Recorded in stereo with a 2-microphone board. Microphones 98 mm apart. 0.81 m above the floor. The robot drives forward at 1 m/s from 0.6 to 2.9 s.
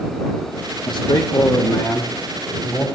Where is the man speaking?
55° left (ahead or behind), 0.5 m; by 2.9 s 10° left (ahead or behind), 2 m.